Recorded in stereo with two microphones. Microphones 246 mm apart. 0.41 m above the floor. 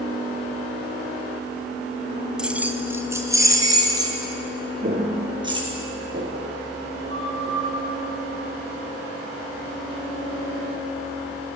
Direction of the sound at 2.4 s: 5° right (ahead or behind).